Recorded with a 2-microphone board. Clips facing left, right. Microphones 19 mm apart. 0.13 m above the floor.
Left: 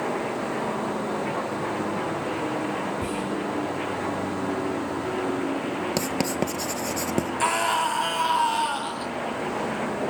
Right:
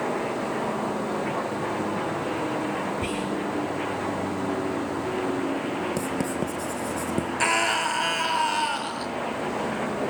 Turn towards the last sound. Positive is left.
turn(degrees=-25)  # may be behind; listen again after turning